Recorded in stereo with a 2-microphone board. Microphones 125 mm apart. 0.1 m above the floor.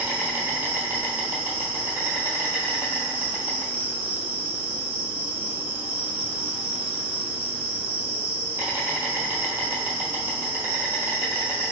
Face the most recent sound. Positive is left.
turn(degrees=-15)  # may be behind; listen again after turning